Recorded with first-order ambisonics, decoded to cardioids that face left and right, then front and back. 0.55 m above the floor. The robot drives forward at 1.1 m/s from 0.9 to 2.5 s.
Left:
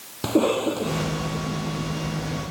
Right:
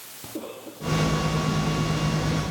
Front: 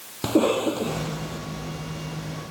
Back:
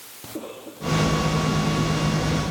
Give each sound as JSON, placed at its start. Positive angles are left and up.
{"t": 0.2, "sound": "a cough", "azimuth_deg": 45}